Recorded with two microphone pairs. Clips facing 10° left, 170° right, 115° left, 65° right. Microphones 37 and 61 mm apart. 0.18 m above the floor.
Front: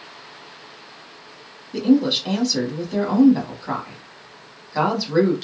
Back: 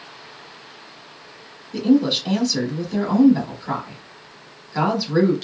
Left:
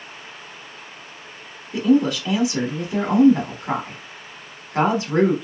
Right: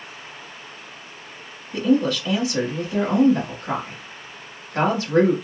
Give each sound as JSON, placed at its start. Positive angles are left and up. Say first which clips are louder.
{"t": 1.7, "sound": "a woman speaking", "louder": "even, left 2 dB", "azimuth_deg": 80, "distance_m": 1.1}